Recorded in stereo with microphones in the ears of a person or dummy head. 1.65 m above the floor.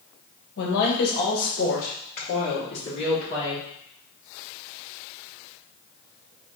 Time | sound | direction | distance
0.6 | a woman speaking | 65° left (ahead or behind) | 1.5 m